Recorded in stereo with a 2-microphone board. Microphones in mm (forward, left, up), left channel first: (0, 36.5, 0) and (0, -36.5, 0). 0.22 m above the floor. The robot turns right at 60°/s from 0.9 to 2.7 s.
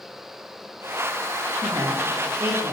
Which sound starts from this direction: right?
A woman speaking, at 1.6 s.